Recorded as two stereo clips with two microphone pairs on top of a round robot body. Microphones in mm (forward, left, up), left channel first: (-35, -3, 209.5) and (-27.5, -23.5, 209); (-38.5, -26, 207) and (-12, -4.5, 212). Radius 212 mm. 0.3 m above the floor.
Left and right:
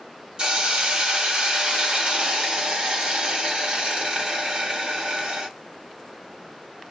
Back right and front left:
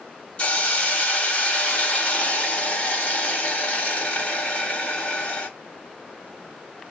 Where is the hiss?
105° right, 1.5 m.